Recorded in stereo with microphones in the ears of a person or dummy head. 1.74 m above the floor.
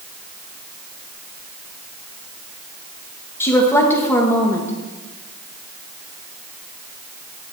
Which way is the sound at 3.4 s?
15° left (ahead or behind).